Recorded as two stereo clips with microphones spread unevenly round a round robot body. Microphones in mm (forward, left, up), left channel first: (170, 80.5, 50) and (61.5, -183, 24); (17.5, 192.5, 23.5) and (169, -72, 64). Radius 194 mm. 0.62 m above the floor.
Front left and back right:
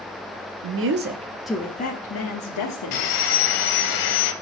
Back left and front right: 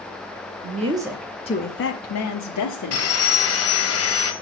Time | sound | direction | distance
0.6 | a woman speaking | 130° right | 0.9 m
2.9 | sawing | 70° left | 1.0 m